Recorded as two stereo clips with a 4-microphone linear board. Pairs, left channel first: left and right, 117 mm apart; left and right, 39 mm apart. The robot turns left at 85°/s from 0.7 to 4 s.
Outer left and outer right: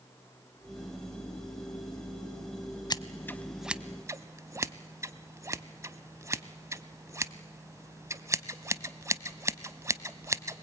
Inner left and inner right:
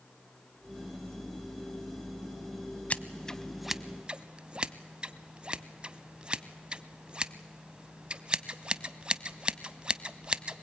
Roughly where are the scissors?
Left.